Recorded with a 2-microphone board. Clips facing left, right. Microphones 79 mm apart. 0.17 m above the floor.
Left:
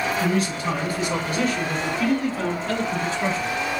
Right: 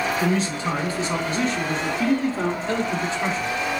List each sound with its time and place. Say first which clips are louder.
0.2 s a man speaking: even; 30° right (ahead or behind), 1.9 m; by 3.5 s 20° right (ahead or behind), 1.2 m